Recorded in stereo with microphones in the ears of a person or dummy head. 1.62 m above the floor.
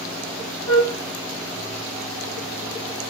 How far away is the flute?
About 5 m.